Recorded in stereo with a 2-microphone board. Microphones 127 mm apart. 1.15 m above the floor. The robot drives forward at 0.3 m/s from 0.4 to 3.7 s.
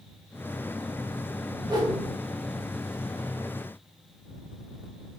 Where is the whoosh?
30° right (ahead or behind), 1.1 m.